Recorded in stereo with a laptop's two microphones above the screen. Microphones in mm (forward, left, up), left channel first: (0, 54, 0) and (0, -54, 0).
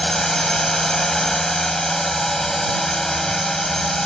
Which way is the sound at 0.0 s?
5° left (ahead or behind).